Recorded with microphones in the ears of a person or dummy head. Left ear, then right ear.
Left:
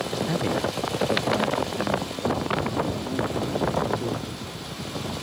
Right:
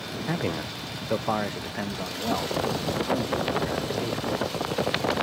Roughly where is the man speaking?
Centre.